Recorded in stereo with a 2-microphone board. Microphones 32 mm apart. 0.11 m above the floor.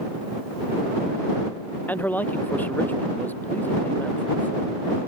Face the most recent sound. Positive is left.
turn(degrees=75)  # may be behind; listen again after turning